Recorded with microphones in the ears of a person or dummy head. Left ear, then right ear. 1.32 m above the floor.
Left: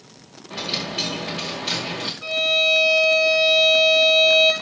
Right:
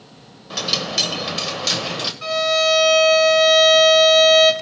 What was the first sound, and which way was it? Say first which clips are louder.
A dropped coin: right 5 dB; 55° right (ahead or behind).